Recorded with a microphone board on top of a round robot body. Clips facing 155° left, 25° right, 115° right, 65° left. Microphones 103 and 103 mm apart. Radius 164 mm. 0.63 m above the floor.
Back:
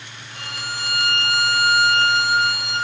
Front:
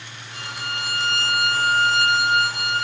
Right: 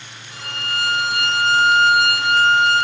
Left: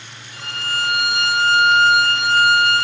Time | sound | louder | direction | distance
0.3 | a violin | even, left 1 dB | 95° right | 2.5 m